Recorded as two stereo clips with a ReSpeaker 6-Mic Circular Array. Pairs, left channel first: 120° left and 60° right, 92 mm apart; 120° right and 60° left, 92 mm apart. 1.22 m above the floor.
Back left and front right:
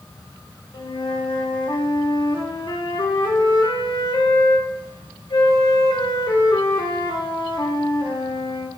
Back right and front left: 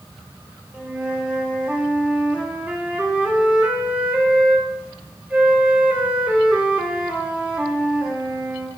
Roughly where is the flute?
Behind left.